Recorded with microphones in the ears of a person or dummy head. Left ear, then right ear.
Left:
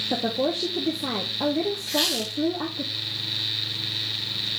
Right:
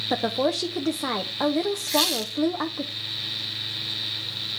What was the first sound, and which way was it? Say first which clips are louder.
A woman speaking: right 4 dB; 45° right (ahead or behind).